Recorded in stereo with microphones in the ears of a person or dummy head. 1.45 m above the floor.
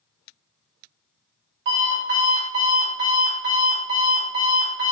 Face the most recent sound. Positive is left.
turn(degrees=-50)  # may be behind; listen again after turning